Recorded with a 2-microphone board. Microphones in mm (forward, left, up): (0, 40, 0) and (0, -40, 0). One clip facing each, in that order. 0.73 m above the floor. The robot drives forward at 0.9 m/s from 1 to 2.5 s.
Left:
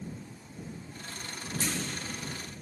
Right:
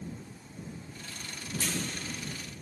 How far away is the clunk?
About 1.7 m.